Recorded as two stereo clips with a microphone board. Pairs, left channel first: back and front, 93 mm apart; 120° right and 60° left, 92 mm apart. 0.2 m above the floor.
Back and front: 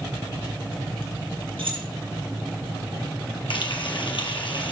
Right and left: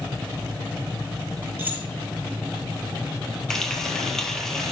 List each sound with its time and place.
1.6 s keys jangling: 5° right, 3 m
3.5 s frying: 155° left, 2 m